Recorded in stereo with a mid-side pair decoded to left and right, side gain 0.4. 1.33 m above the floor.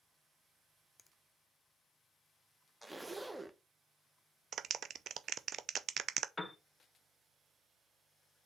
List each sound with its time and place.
1.0 s a finger snap: 15° left, 0.6 m
2.8 s a zipper: 15° right, 0.9 m
4.5 s a clap: 60° right, 0.5 m
6.4 s a piano: 20° left, 1.4 m